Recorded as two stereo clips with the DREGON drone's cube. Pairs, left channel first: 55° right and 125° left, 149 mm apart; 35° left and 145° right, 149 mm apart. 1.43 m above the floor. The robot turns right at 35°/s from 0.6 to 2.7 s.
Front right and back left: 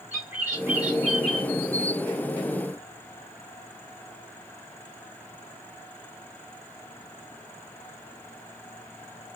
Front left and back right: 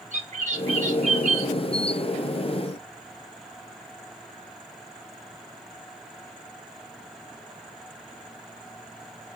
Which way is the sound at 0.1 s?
165° right.